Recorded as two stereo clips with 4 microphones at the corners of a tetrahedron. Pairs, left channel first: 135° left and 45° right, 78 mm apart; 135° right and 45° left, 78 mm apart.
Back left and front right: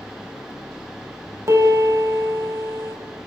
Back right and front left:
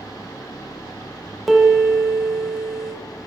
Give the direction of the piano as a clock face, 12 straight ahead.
1 o'clock.